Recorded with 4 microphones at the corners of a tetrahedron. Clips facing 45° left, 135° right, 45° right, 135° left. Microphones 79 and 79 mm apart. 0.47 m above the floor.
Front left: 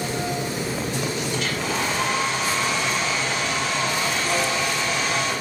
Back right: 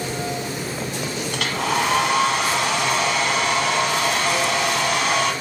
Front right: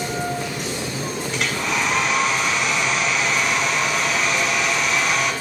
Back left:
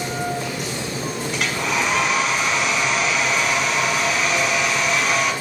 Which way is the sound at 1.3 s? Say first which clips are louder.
Back right 3 dB, back left 1 dB; 135° right.